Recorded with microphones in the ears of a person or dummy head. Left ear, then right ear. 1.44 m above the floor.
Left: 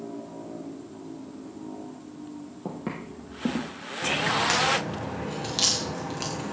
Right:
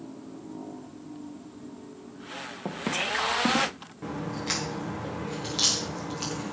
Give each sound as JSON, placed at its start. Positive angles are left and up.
{"t": 2.6, "sound": "footsteps", "side_deg": -30, "distance_m": 1.6}
{"t": 4.0, "sound": "a crack", "side_deg": 10, "distance_m": 1.8}